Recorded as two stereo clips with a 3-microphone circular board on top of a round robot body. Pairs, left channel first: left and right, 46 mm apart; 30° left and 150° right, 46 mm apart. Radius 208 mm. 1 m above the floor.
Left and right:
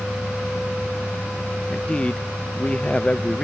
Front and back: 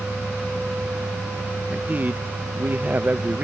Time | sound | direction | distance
1.7 | a man speaking | 160° left | ?